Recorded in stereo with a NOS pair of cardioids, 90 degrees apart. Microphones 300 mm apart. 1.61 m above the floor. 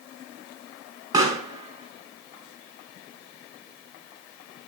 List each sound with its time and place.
1.1 s a pop: 10° right, 5 m